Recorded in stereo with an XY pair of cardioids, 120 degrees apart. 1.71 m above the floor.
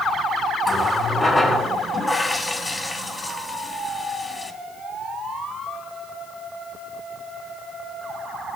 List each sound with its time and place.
0.6 s a running tap: 20° left, 2.5 m